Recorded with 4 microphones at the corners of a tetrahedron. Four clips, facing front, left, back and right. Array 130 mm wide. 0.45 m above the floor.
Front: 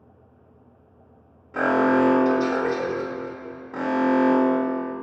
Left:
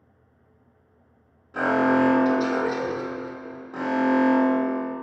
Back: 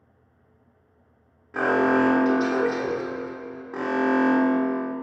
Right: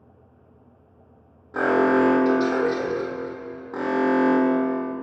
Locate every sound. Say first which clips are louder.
1.5 s an alarm: right 2 dB, front 1 dB; 85° right, 1.6 m